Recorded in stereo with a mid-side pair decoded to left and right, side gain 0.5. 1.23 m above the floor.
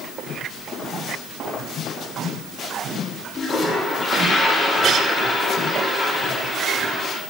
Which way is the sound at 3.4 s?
35° left.